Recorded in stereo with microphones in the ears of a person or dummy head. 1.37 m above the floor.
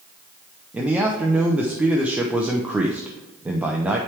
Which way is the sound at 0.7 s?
15° right (ahead or behind).